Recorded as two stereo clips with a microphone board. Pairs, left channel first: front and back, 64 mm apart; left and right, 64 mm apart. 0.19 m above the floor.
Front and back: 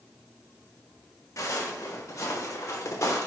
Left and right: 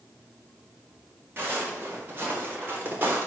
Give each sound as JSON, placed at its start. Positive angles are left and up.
{"t": 1.4, "sound": "footsteps", "azimuth_deg": -30, "distance_m": 4.5}